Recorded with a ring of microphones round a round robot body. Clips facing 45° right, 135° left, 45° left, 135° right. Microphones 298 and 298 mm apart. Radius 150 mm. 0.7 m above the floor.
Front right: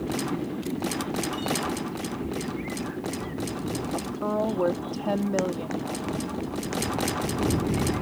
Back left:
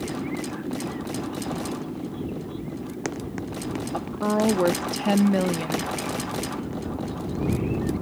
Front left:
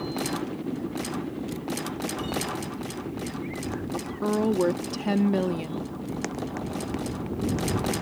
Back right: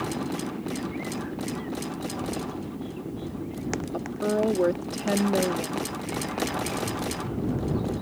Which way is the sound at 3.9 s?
115° left.